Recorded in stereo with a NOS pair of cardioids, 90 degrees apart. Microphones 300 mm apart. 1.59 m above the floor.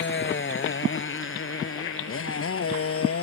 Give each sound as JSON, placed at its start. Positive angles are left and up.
{"t": 0.0, "sound": "a motorcycle", "azimuth_deg": 40}